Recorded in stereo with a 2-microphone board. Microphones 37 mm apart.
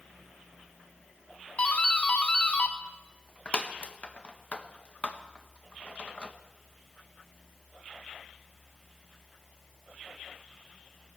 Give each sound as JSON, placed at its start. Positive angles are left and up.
{"t": 1.6, "sound": "a doorbell", "side_deg": 35, "distance_m": 0.9}